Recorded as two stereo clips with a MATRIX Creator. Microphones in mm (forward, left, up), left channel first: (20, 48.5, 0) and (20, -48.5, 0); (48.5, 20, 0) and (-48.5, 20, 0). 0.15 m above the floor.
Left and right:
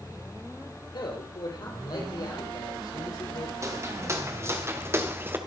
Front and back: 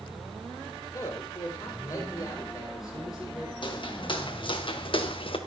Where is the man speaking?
55° left, 4.5 m; by 3.5 s 45° left, 6 m.